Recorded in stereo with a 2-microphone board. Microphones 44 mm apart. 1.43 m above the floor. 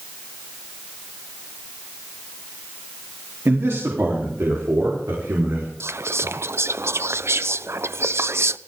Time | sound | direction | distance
3.5 | a man speaking | 65° right (ahead or behind) | 3.5 m
5.8 | whispering | 70° right (ahead or behind) | 0.6 m